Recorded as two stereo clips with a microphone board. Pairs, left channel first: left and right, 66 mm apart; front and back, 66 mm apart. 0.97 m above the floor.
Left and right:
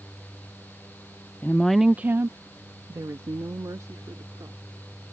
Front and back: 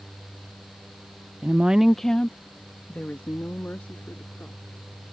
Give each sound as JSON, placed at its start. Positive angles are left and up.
{"t": 1.4, "sound": "a woman speaking", "azimuth_deg": 130}